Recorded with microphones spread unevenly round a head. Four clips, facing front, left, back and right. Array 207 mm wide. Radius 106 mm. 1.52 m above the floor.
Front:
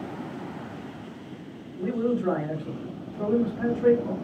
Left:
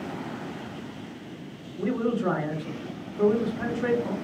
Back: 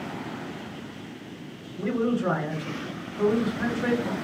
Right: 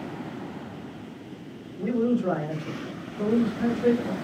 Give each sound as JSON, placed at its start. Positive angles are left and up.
{"t": 1.8, "sound": "a man speaking", "azimuth_deg": 135, "distance_m": 1.3}